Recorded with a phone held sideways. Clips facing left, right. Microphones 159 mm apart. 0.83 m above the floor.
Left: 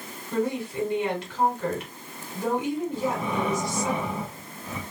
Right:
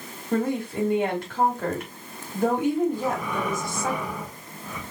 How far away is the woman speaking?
About 2.5 m.